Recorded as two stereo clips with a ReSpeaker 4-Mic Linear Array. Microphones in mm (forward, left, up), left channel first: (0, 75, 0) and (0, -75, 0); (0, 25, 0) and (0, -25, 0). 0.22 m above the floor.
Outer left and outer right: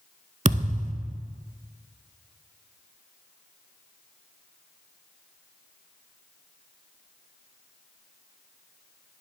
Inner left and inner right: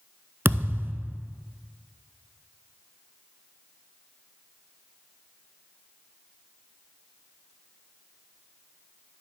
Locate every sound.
0.5 s a thud: 45° right (ahead or behind), 0.5 m